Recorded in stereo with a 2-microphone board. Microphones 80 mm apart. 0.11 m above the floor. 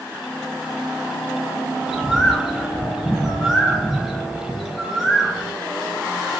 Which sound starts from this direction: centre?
A bird, at 1.8 s.